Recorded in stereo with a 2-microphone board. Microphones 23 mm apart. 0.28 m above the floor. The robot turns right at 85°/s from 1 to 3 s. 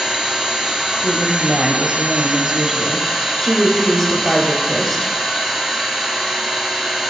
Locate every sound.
0.0 s an engine running: 165° right, 1.9 m; by 7.1 s 5° left, 1.9 m
1.0 s a woman speaking: 20° right (ahead or behind), 1.0 m; by 5.1 s 15° left (ahead or behind), 1.0 m